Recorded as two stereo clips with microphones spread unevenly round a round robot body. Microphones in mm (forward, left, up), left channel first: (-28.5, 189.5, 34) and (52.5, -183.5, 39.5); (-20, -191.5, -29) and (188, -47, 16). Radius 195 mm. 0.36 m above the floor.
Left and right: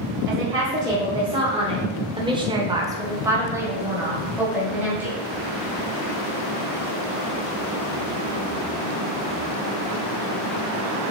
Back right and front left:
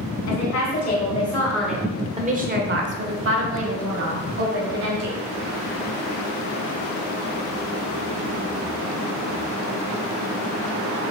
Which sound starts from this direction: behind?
A woman speaking, at 0.3 s.